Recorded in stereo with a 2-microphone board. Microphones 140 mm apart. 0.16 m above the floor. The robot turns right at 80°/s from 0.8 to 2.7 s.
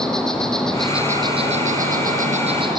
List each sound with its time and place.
0.0 s an insect: 175° left, 1.9 m; by 2.8 s 35° right, 1.9 m